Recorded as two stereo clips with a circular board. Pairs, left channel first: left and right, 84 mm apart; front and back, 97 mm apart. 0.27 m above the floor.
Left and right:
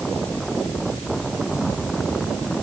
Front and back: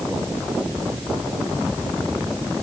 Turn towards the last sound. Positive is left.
No sound to turn to.